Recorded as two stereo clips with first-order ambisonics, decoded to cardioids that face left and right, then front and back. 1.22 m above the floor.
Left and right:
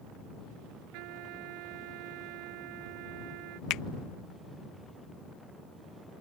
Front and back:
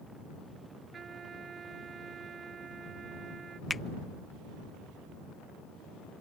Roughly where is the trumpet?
Right.